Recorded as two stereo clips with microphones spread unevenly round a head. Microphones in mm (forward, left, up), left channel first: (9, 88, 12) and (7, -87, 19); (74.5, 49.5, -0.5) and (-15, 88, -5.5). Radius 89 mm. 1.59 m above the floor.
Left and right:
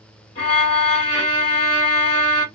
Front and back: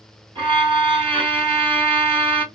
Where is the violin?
150° left, 2 m.